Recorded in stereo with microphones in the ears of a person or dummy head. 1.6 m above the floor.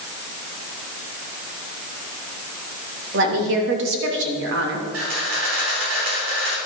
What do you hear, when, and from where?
3.1 s a woman speaking: 65° right (ahead or behind), 3 m
4.9 s a camera shutter: 85° right, 4.5 m